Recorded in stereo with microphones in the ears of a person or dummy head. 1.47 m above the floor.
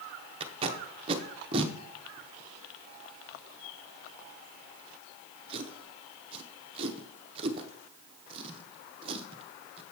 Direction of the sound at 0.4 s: 35° right (ahead or behind).